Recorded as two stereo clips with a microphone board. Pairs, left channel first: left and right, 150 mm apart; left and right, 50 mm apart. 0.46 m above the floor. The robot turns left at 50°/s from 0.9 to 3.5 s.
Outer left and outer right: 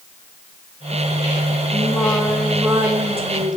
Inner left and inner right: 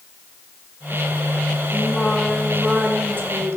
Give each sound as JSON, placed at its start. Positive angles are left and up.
{"t": 1.7, "sound": "singing", "azimuth_deg": 30, "distance_m": 4.0}